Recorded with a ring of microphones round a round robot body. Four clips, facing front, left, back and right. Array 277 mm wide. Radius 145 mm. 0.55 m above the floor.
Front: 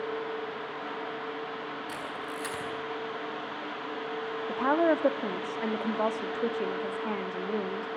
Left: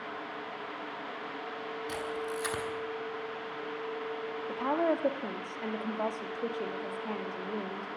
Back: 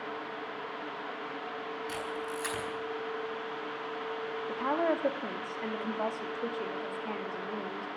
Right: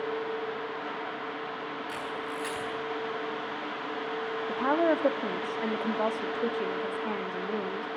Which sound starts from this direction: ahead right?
A woman speaking, at 4.5 s.